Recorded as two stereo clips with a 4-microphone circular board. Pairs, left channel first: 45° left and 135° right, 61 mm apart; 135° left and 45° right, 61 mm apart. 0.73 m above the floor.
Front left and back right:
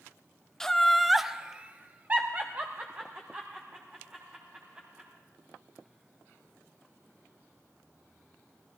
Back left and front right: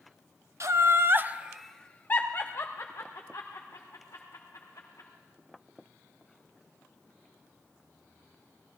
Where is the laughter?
35° right, 0.8 m; by 5.1 s 160° left, 2.5 m.